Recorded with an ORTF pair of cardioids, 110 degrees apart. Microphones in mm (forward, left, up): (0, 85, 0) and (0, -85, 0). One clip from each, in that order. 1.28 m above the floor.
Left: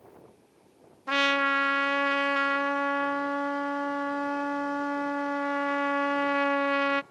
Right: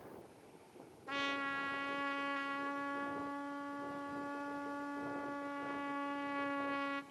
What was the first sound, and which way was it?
A trumpet, 65° left.